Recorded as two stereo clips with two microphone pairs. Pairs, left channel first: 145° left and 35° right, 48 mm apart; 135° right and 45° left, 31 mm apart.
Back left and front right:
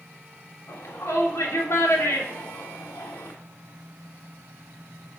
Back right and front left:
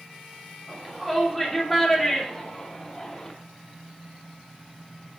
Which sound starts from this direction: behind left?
A shout, at 0.7 s.